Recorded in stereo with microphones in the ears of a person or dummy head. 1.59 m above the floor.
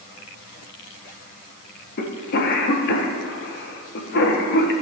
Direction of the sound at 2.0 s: 55° left (ahead or behind).